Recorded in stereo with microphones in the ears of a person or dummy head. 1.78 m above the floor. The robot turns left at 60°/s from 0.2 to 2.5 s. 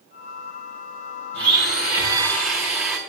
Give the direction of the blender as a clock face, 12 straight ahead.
4 o'clock.